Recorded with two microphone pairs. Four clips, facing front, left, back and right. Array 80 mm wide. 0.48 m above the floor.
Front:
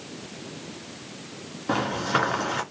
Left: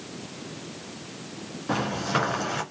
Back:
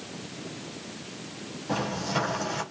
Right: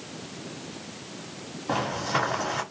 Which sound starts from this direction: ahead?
Footsteps, at 1.7 s.